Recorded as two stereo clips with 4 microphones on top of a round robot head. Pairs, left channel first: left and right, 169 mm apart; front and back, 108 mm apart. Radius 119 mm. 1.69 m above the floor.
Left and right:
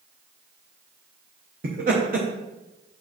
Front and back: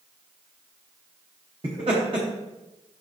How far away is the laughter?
About 0.8 m.